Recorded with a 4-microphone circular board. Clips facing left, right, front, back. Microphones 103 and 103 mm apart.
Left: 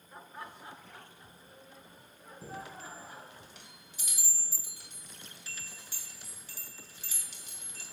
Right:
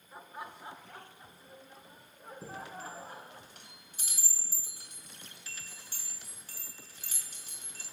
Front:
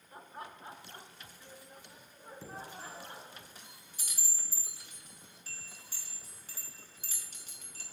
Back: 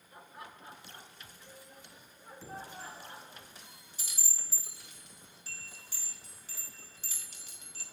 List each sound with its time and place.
0.1 s laughter: 5° right, 1.0 m; by 3.4 s 55° right, 3.5 m
2.4 s a chime: 45° right, 3.5 m